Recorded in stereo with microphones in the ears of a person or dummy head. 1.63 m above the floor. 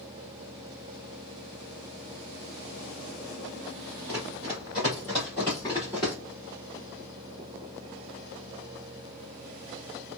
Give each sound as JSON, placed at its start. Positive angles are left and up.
{"t": 4.1, "sound": "running footsteps", "side_deg": -15, "distance_m": 1.8}